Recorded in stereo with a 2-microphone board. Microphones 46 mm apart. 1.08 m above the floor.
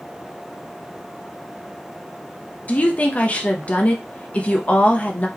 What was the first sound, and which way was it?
A woman speaking, 35° left (ahead or behind).